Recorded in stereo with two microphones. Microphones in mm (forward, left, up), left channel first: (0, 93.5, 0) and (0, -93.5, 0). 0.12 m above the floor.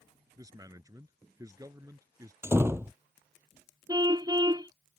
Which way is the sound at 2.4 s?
15° right (ahead or behind).